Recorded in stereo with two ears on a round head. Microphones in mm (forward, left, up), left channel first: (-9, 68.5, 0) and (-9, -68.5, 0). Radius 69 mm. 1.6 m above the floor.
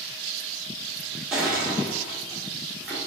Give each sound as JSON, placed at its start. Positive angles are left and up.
{"t": 1.3, "sound": "crushing", "side_deg": -5, "distance_m": 1.2}